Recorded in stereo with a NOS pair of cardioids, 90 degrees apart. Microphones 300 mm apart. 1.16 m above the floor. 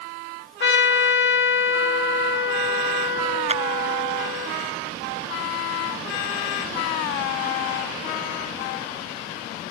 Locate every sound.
0.6 s a trumpet: 40° left
3.5 s a clap: 20° right